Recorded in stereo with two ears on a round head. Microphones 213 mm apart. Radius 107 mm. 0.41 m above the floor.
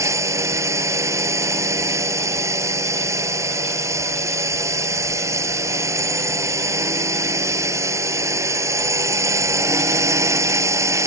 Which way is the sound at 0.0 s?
15° right (ahead or behind).